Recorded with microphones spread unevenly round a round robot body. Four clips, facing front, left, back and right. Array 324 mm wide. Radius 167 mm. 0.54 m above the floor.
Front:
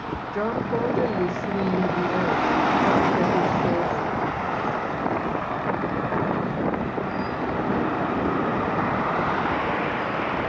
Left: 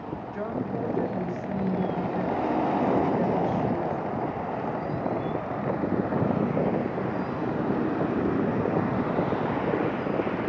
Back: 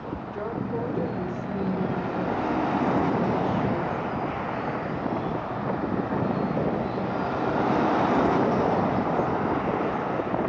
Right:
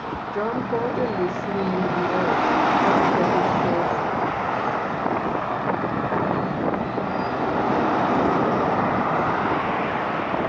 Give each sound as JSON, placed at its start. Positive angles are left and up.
{"t": 0.3, "sound": "a woman speaking", "azimuth_deg": -60, "distance_m": 1.5}